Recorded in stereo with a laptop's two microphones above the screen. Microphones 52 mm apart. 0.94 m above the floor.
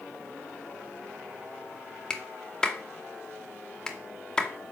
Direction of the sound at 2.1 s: 10° left (ahead or behind).